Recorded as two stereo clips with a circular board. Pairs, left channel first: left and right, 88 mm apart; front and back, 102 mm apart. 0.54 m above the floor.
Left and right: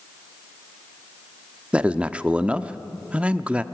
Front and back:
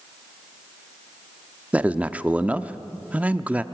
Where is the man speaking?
135° right, 0.7 m.